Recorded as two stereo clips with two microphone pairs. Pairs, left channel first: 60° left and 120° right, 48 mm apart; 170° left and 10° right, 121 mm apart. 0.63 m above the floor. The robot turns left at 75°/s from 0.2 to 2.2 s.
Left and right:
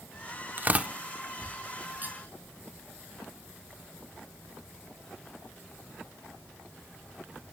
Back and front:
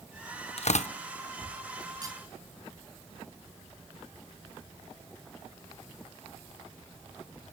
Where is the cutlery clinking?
65° right, 3 m; by 2.2 s 80° right, 3 m.